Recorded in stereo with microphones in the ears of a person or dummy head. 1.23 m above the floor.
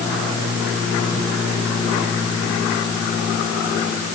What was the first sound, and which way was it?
Only background noise.